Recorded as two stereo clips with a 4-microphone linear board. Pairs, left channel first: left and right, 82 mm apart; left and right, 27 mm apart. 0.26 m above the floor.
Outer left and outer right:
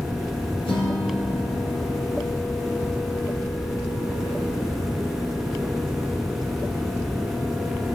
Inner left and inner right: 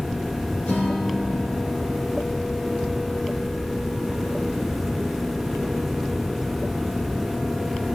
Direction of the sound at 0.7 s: 75° left (ahead or behind).